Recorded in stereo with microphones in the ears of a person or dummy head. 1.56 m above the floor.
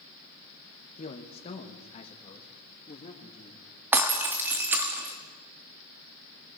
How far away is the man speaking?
About 2 m.